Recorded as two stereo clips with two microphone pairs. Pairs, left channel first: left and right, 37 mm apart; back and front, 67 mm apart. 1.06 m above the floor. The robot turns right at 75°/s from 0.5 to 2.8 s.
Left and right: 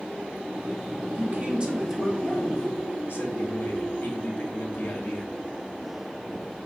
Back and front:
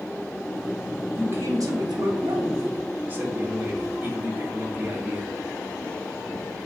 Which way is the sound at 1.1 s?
60° right.